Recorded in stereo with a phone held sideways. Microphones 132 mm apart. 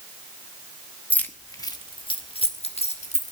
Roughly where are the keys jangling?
Centre.